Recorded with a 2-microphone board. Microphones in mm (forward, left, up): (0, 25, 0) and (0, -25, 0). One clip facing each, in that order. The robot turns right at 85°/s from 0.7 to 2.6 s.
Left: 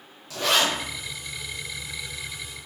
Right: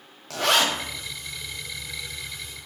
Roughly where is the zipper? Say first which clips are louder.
Right 1 dB; right.